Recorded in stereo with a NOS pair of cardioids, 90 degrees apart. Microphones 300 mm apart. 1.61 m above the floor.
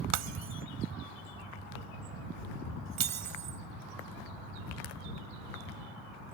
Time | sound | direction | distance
0.1 | breaking glass | 65° right | ?